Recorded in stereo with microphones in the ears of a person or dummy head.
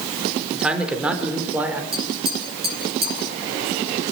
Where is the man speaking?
Centre (ahead or behind), 4 m; by 1.8 s 5° right (ahead or behind), 4.5 m.